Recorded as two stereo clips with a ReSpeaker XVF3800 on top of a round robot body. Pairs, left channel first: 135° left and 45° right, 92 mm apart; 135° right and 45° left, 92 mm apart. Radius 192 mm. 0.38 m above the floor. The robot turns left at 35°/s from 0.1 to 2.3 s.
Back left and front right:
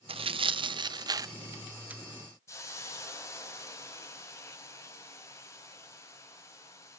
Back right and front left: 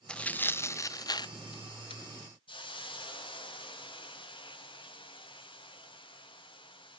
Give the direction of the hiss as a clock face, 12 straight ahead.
6 o'clock.